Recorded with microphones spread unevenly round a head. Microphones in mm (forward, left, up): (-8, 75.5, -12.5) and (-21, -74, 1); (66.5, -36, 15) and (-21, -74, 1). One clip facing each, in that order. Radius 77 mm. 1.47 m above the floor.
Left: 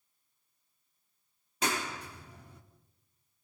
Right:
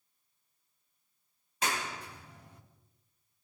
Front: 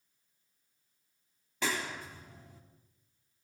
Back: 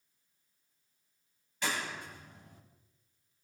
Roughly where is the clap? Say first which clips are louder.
Left 1 dB, front 1 dB; left.